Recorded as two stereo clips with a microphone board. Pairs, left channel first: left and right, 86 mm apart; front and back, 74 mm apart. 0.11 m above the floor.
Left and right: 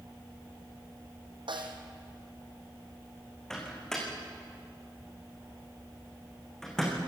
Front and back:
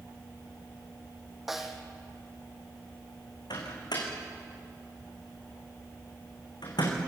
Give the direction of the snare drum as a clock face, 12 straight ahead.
3 o'clock.